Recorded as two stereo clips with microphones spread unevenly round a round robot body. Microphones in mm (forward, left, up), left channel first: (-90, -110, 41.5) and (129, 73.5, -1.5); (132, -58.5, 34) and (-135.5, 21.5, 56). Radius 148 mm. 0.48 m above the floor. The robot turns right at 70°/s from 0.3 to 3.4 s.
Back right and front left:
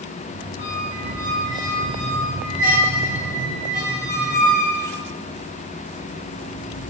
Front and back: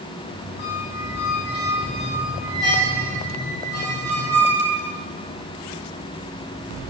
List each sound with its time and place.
0.6 s a squeak: 55° right, 1.0 m; by 5.0 s 140° left, 1.0 m